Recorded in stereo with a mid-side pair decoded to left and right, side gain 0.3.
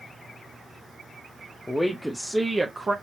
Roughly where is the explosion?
No explosion in this recording.